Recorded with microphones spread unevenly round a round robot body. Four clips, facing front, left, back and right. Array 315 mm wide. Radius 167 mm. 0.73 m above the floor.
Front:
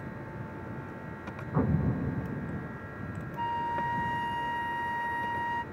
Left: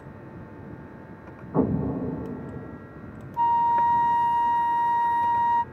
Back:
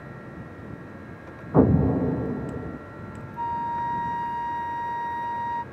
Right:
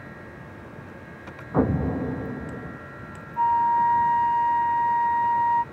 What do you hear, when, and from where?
1.5 s an explosion: 170° right
3.4 s a flute: 95° left